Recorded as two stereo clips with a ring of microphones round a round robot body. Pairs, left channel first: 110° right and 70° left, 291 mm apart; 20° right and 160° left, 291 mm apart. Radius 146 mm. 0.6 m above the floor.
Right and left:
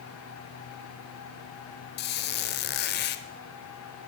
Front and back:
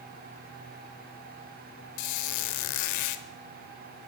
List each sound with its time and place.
2.0 s a squeak: 55° right, 0.7 m